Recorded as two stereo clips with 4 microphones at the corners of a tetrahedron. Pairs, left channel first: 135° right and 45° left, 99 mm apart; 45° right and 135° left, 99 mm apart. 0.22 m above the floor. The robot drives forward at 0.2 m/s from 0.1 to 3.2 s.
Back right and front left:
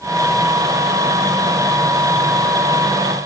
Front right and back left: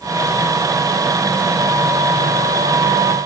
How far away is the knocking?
No knocking in this recording.